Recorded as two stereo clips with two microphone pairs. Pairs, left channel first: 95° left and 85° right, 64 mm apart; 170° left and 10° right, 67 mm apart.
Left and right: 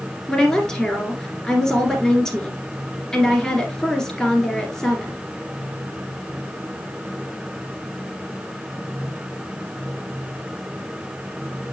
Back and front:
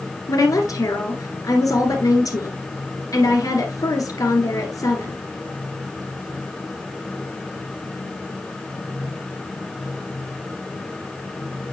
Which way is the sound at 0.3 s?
175° left.